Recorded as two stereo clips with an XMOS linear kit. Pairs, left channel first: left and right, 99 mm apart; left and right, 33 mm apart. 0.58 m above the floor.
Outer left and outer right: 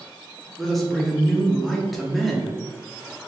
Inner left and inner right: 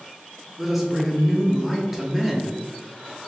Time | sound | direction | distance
0.6 | a man speaking | centre (ahead or behind) | 0.8 m